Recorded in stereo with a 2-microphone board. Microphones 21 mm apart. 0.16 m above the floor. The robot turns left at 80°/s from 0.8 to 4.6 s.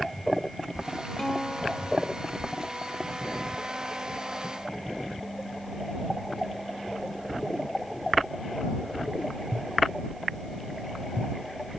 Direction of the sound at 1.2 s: 15° left.